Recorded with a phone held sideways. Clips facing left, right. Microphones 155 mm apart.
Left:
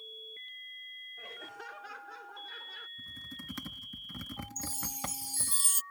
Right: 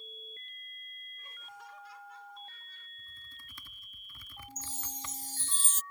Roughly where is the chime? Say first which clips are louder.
Left 3 dB; centre.